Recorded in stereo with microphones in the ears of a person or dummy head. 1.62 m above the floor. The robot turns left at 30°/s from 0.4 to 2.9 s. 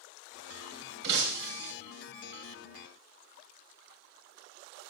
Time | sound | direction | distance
1.0 | breaking glass | 60° right (ahead or behind) | 2.5 m